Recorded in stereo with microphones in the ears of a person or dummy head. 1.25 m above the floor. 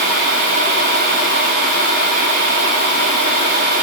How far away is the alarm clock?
No alarm clock in this recording.